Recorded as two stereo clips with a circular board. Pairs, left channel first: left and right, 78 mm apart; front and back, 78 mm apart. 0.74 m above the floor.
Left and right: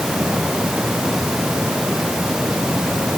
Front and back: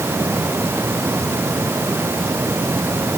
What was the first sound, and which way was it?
Only background noise.